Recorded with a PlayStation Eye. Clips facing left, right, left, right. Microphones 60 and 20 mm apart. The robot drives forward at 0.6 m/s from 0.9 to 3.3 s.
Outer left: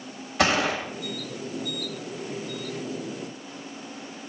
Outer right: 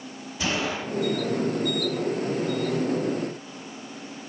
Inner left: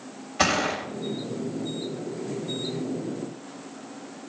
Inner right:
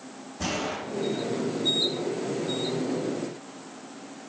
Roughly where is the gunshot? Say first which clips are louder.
Outer left 5 dB, inner left 7 dB; left.